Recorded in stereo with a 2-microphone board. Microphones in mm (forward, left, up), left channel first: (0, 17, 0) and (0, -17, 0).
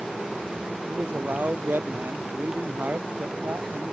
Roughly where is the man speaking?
Right.